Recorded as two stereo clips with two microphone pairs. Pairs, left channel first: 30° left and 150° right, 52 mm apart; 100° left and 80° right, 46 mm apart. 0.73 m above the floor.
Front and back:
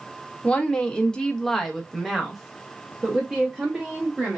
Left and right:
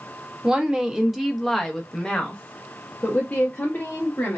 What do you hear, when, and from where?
0.4 s a woman speaking: 25° right, 1.1 m; by 4.4 s 140° left, 1.8 m